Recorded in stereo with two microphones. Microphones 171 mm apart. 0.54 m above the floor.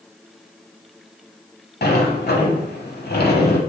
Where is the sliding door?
70° left (ahead or behind), 0.8 m.